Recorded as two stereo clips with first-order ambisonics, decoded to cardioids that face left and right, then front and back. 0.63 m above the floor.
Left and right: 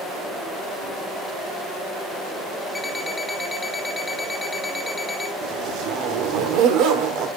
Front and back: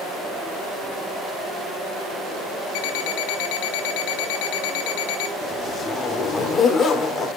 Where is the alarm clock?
5° left, 1.1 m.